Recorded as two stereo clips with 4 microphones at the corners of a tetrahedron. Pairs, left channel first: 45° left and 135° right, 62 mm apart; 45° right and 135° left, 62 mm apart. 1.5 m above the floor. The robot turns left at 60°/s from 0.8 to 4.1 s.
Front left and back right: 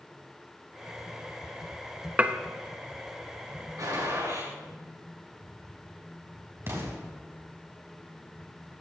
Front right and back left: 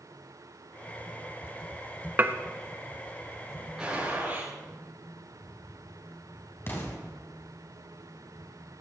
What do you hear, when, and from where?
2.2 s dishes clattering: 170° left, 0.9 m; by 2.4 s 165° left, 0.9 m
3.8 s a gunshot: 145° right, 8.5 m; by 4.5 s 165° right, 8.5 m
6.7 s an explosion: 95° right, 3.5 m